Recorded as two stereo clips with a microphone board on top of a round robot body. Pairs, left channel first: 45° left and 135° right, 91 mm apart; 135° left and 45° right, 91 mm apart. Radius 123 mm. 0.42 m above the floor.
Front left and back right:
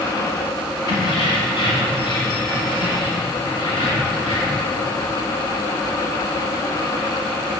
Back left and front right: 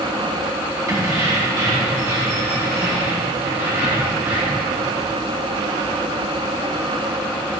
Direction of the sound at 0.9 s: 10° left.